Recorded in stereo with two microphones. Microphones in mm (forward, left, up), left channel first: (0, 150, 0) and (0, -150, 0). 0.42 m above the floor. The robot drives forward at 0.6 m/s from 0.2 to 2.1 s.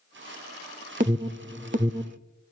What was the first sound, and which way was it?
An alarm, 25° right (ahead or behind).